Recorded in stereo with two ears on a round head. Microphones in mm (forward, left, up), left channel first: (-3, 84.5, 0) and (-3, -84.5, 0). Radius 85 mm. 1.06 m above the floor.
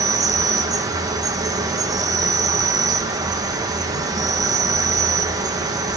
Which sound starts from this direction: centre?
An insect, at 0.0 s.